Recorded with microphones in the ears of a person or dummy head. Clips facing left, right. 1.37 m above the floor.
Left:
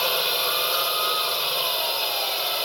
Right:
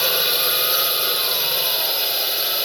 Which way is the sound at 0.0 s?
20° right (ahead or behind).